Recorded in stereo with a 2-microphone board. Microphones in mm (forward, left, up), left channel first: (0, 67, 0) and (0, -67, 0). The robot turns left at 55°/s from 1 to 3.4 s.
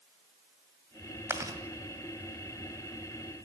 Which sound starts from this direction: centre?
Chewing, at 1.3 s.